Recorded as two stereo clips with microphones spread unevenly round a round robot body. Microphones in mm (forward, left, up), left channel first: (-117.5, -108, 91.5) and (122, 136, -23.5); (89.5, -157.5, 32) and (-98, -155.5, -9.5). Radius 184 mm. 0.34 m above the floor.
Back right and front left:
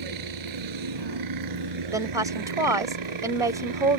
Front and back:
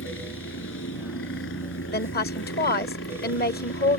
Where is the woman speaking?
5° right.